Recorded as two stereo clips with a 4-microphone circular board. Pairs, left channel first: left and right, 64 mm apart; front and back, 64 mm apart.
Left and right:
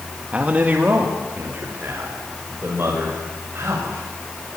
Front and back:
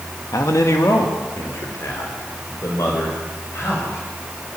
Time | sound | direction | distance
0.3 | a man speaking | 20° right | 1.7 m